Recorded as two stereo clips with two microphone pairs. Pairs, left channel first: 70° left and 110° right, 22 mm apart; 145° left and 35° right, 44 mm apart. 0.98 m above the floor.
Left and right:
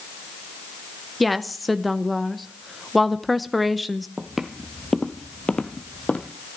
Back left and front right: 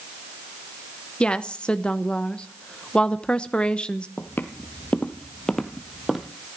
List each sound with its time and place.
1.2 s a woman speaking: 155° left, 0.8 m
4.2 s footsteps: straight behind, 1.6 m; by 6.3 s 50° left, 2 m